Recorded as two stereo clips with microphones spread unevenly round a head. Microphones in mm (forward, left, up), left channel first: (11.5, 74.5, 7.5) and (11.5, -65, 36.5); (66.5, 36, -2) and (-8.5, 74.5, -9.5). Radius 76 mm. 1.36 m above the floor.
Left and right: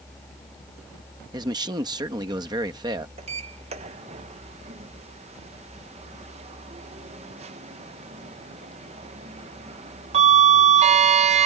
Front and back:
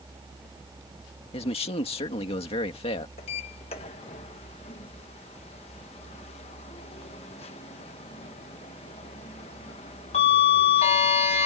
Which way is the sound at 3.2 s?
45° right.